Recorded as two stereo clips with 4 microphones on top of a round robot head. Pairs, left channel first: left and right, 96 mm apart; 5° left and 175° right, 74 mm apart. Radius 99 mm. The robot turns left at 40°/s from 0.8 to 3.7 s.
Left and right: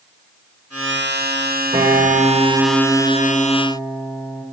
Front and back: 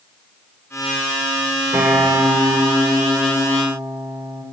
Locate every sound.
1.7 s a guitar: 120° right, 4 m; by 4.4 s 160° left, 4 m